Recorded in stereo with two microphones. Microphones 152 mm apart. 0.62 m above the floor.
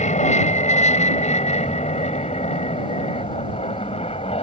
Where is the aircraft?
50° left (ahead or behind); by 4.4 s 40° left (ahead or behind).